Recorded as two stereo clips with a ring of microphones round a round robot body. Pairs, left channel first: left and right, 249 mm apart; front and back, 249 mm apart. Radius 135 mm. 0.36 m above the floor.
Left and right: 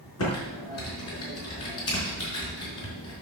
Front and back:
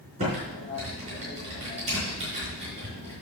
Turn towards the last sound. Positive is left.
turn(degrees=115)